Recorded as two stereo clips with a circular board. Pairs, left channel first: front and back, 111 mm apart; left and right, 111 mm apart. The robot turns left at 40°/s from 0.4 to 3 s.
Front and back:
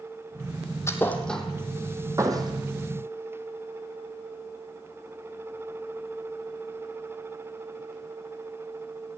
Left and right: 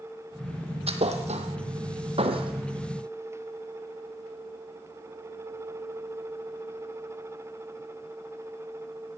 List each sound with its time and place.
0.9 s a thud: 65° right, 2 m; by 2.5 s 130° right, 2 m